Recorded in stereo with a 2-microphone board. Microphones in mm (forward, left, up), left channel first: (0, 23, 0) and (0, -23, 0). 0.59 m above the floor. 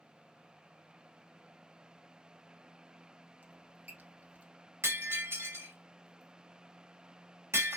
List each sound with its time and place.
3.4 s a squeak: 40° right (ahead or behind), 1.1 m
4.8 s breaking glass: 70° right (ahead or behind), 1.3 m